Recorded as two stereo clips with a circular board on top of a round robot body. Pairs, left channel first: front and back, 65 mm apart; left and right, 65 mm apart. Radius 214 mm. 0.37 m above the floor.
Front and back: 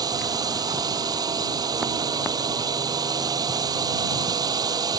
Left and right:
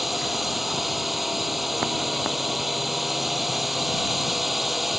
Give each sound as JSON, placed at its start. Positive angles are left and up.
{"t": 0.0, "sound": "a drone", "azimuth_deg": 180}